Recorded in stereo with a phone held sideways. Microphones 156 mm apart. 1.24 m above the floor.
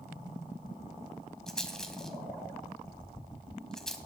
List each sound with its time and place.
1.5 s a rattle: 5° left (ahead or behind), 1.2 m